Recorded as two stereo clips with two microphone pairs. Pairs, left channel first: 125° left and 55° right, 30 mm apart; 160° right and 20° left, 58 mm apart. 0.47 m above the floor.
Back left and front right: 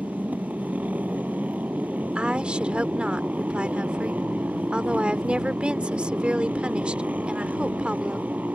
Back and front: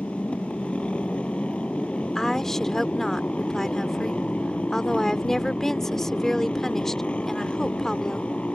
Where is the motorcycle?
85° right.